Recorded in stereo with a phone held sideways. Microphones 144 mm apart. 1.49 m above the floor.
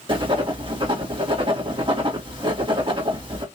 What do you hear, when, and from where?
0.1 s writing: 35° right (ahead or behind), 2 m